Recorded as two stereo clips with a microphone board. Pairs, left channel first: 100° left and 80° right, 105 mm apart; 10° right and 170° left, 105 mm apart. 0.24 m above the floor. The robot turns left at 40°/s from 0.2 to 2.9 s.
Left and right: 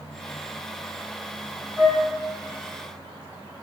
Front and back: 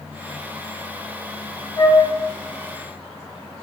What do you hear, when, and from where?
1.8 s a flute: 5° right, 0.8 m; by 2.0 s 15° right, 0.8 m